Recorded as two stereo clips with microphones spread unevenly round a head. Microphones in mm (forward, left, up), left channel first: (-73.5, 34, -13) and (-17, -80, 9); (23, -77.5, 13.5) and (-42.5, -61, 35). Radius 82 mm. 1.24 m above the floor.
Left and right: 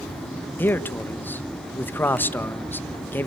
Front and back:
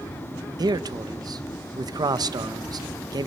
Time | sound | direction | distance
0.6 | a man speaking | 170° right | 1.4 m